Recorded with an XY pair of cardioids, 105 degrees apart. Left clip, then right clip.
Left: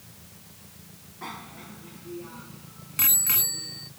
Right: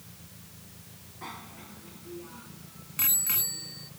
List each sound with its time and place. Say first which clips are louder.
1.2 s a bicycle bell: left 4 dB; 15° left; by 3.9 s 25° left